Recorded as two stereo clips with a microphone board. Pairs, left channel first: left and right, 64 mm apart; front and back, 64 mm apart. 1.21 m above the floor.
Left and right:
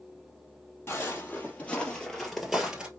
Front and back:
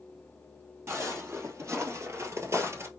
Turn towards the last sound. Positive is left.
turn(degrees=-160)